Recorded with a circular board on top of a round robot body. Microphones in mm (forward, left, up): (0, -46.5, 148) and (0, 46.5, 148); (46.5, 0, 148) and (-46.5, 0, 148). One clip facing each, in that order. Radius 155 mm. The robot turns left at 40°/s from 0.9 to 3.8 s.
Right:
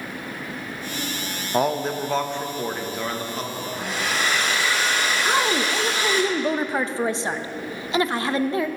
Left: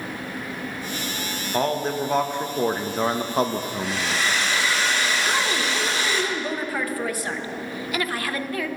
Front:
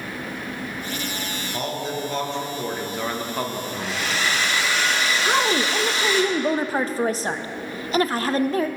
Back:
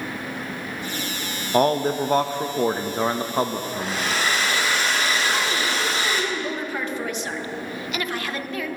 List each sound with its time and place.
1.5 s a man speaking: 165° right, 0.7 m; by 4.2 s 105° left, 0.7 m
3.7 s a hair dryer: 130° right, 2 m
5.2 s a woman speaking: 35° right, 0.7 m